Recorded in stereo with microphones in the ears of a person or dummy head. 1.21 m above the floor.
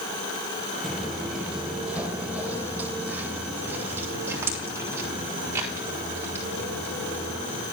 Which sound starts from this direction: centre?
Footsteps, at 0.8 s.